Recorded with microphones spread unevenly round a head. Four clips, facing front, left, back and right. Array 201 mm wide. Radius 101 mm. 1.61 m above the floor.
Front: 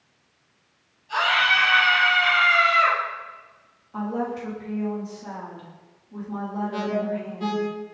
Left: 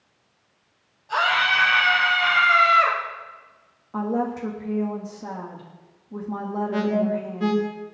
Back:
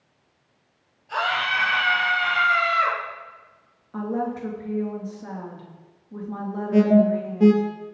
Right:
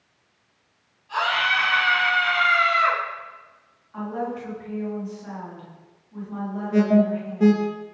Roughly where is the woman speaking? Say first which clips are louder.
Left 4 dB, back 1 dB; left.